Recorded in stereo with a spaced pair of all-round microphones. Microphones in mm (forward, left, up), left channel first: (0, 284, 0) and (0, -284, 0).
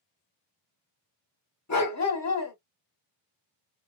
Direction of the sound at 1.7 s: 30° left (ahead or behind).